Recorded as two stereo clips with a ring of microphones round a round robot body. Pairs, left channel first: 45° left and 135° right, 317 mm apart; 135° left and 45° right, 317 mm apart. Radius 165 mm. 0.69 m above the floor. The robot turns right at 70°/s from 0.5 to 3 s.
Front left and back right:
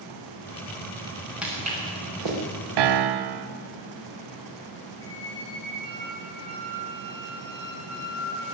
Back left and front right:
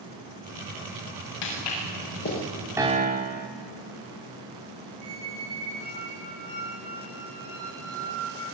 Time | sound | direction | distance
1.4 | footsteps | 135° left | 7 m
2.8 | a piano | 130° right | 0.9 m
5.0 | a squeak | 60° right | 9 m